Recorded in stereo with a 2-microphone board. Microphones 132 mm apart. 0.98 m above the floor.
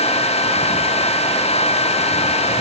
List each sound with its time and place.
Only background noise.